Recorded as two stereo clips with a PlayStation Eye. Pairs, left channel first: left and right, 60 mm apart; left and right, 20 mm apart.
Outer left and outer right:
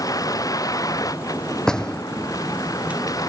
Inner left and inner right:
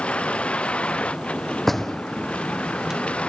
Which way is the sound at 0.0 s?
85° left.